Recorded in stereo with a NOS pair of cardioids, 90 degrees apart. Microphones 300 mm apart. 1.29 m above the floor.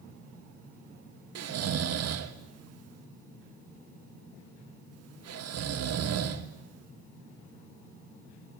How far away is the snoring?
About 1.9 m.